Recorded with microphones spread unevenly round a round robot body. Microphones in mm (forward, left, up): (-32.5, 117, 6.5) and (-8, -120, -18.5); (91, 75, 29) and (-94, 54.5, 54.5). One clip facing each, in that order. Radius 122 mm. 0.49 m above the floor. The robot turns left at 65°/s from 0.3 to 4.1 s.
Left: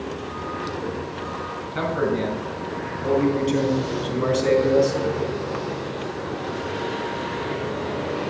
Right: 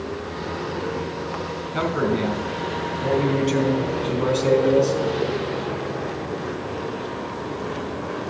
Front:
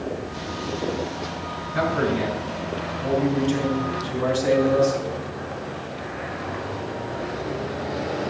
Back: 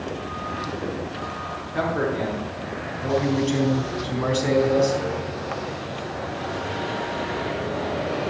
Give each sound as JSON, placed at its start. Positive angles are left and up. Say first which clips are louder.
{"t": 1.7, "sound": "a man speaking", "louder": "right 1 dB, front 1 dB", "azimuth_deg": -45, "distance_m": 3.5}